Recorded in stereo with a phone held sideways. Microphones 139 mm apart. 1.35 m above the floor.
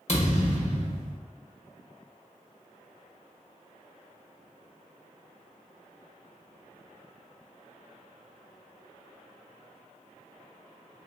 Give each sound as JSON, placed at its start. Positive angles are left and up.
{"t": 0.1, "sound": "a thud", "side_deg": 50, "distance_m": 1.3}